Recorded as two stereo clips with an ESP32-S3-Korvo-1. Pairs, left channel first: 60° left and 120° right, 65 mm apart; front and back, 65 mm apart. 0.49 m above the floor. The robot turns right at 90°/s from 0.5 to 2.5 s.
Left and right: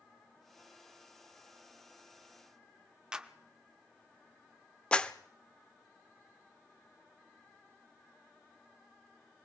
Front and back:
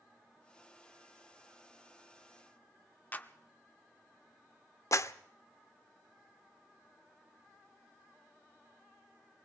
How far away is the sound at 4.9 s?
About 0.7 m.